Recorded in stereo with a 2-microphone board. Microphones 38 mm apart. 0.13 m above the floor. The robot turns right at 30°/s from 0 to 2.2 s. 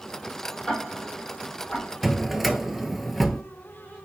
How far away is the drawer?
About 0.7 m.